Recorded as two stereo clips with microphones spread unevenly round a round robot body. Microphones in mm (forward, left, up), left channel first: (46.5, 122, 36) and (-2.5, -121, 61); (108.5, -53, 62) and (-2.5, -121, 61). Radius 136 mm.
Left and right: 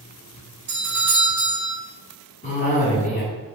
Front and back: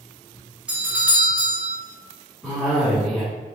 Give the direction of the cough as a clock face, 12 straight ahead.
8 o'clock.